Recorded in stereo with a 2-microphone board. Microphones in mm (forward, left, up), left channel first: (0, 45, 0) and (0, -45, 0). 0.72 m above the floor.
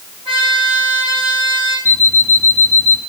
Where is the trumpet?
80° right, 8 m.